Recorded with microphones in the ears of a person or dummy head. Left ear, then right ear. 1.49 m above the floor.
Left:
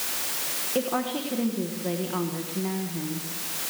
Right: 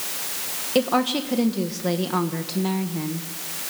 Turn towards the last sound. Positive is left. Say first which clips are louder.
# right 7 dB
turn(degrees=-85)